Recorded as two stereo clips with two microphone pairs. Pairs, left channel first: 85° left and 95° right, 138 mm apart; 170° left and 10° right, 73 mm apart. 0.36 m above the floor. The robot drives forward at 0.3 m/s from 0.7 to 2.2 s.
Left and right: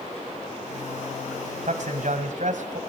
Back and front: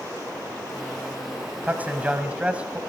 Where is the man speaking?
75° right, 1.8 m; by 2.8 s 80° right, 1.7 m.